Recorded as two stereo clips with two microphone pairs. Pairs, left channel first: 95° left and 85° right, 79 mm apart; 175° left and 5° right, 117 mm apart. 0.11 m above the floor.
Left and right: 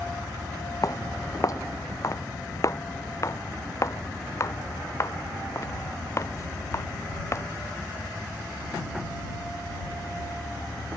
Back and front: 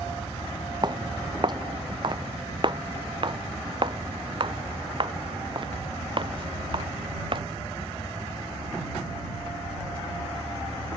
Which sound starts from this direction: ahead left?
Footsteps, at 0.8 s.